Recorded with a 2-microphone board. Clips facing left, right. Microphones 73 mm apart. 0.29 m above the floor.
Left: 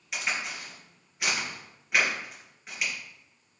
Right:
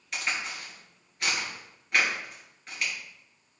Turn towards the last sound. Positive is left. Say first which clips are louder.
# even
turn(degrees=5)  # may be behind; listen again after turning